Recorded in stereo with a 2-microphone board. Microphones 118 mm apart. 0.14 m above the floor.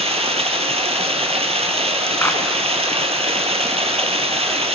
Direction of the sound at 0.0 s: 60° right (ahead or behind).